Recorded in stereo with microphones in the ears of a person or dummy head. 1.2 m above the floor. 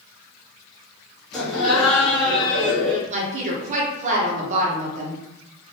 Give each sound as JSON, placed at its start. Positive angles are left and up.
{"t": 1.3, "sound": "laughter", "side_deg": 0, "distance_m": 1.3}
{"t": 3.1, "sound": "a woman speaking", "side_deg": -40, "distance_m": 0.8}